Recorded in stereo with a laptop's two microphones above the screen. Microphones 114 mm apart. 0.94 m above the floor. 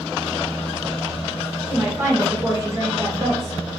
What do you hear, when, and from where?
1.7 s a woman speaking: 10° right (ahead or behind), 1.0 m; by 3.6 s 40° right (ahead or behind), 1.0 m